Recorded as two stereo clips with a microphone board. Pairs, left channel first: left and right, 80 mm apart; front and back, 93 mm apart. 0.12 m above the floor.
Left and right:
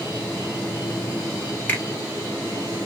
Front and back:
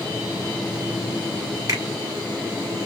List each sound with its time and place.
1.7 s a finger snap: 150° left, 2 m